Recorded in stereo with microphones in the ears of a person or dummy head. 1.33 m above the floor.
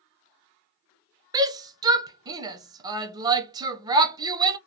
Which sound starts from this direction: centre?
A shout, at 1.3 s.